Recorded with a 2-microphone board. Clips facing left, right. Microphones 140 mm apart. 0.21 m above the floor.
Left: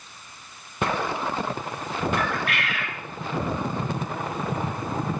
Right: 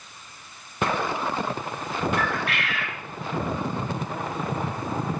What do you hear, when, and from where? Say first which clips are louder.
2.2 s a bird: even; 35° right (ahead or behind), 1.2 m